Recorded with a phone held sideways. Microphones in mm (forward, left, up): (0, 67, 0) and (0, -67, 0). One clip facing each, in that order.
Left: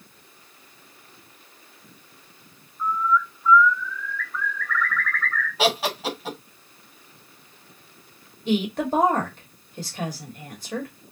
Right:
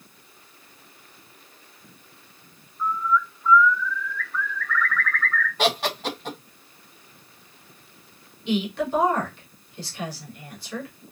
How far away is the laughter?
About 1.1 m.